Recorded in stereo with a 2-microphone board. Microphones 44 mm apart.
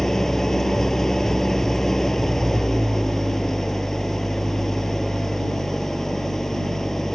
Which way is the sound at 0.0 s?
10° left (ahead or behind).